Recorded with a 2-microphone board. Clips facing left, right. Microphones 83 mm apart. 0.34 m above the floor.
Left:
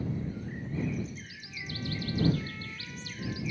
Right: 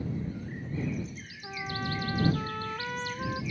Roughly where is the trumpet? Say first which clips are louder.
Right 5 dB; right.